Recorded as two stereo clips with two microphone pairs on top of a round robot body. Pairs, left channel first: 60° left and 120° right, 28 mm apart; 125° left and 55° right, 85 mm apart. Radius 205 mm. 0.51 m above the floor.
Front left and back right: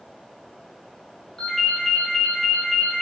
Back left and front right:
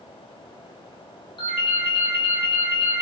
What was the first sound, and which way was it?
A ringtone, 125° left.